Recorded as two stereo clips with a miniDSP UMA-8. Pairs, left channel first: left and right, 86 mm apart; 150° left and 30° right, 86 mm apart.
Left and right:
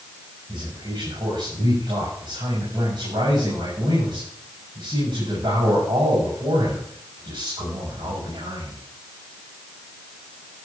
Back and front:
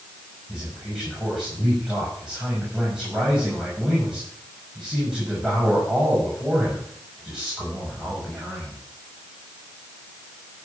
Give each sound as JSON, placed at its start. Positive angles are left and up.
{"t": 0.5, "sound": "a man speaking", "azimuth_deg": -110, "distance_m": 6.0}